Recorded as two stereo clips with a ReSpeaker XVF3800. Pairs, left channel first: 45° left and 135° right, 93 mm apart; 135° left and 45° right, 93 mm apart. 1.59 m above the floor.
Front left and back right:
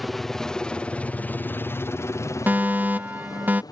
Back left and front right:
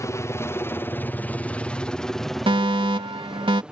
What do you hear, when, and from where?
0.0 s a helicopter: 135° left; by 3.7 s 30° left
2.5 s a fire alarm: 65° right